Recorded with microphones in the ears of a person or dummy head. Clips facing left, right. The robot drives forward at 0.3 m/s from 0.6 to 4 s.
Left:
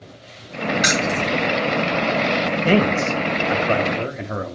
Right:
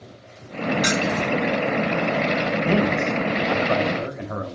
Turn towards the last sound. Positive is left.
turn(degrees=30)  # may be behind; listen again after turning